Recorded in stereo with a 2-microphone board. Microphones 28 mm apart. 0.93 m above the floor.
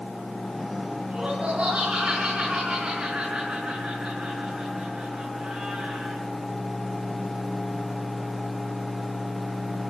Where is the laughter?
55° right (ahead or behind), 9.5 m.